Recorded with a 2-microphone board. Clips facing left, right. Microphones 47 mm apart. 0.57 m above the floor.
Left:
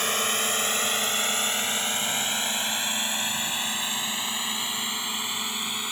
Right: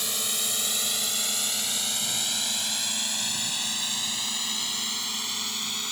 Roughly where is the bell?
I don't hear a bell.